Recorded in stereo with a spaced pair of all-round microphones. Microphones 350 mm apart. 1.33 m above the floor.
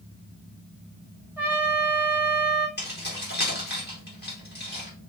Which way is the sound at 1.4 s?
5° right (ahead or behind).